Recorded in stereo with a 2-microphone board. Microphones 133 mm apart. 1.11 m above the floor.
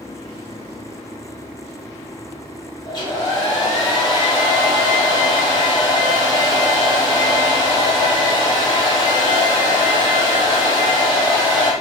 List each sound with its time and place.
2.9 s a hair dryer: 35° left (ahead or behind), 3 m